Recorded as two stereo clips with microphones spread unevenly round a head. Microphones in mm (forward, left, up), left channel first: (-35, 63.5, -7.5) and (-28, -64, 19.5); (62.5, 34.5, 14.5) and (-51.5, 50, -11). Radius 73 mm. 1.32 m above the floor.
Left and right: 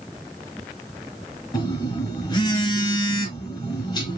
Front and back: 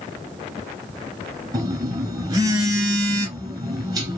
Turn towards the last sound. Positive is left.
turn(degrees=130)